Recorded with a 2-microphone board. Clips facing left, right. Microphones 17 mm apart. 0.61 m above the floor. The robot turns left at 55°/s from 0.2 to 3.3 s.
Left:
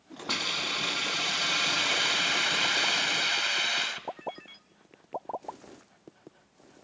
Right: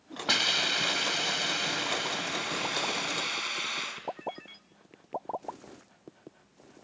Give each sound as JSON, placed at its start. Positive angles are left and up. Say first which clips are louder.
{"t": 0.3, "sound": "a hiss", "louder": "right 4 dB", "azimuth_deg": -120, "distance_m": 3.0}